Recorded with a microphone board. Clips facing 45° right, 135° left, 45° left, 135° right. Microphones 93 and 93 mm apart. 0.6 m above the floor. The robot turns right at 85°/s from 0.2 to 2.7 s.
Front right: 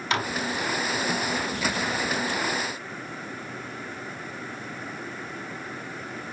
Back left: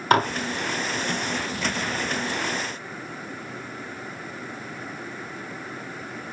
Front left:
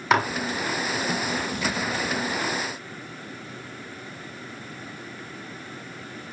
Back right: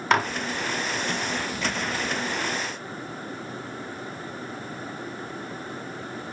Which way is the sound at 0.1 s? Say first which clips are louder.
Back left 8 dB, front left 1 dB; 130° left.